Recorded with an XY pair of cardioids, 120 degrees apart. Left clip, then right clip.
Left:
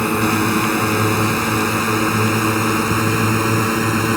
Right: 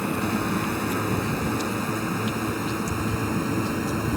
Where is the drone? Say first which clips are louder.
Left 9 dB; 60° left.